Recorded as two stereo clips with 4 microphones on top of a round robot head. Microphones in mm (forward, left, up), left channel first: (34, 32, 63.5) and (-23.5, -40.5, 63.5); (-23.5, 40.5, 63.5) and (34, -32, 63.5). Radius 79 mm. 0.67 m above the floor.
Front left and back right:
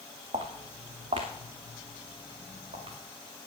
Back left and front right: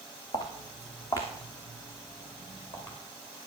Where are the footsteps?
175° right, 2 m; by 3.0 s 165° right, 4.5 m.